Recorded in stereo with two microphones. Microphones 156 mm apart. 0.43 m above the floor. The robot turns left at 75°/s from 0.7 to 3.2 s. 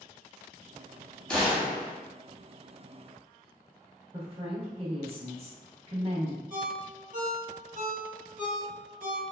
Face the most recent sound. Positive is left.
turn(degrees=-55)  # may be behind; listen again after turning